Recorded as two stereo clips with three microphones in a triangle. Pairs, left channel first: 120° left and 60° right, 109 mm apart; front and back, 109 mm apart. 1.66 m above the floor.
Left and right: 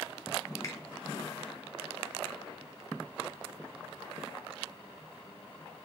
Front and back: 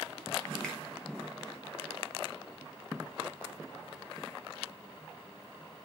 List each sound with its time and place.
0.6 s a finger snap: 75° left, 0.8 m